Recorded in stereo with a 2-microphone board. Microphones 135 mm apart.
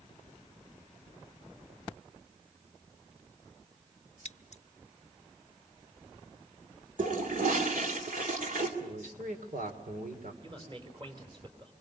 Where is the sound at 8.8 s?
80° right, 3 m.